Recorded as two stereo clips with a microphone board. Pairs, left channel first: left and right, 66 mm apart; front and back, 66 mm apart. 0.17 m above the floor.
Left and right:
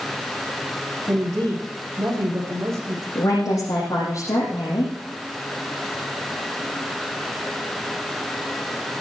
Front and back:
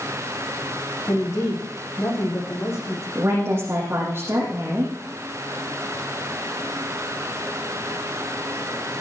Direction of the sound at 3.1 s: 125° left.